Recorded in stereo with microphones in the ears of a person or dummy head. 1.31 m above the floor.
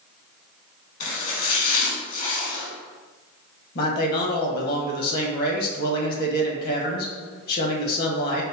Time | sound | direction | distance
1.0 | chopping | 50° left (ahead or behind) | 1.2 m
3.8 | a man speaking | 55° left (ahead or behind) | 1.2 m